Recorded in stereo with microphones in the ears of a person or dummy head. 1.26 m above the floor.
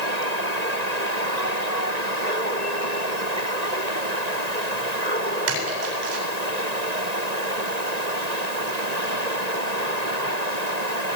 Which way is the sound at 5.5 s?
70° right (ahead or behind).